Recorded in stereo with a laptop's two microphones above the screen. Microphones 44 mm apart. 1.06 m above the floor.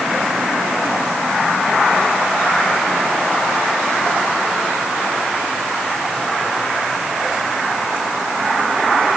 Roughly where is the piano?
I don't hear a piano.